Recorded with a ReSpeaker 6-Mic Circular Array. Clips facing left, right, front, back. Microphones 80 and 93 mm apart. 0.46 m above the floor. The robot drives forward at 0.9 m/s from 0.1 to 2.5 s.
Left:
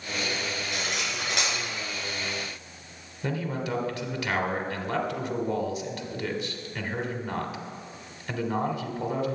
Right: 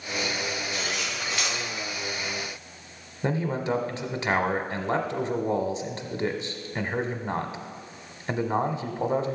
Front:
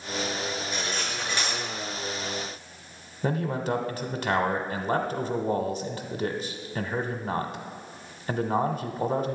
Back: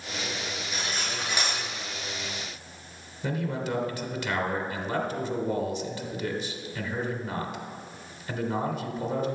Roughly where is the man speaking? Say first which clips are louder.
Right 4 dB, front 3 dB; ahead right.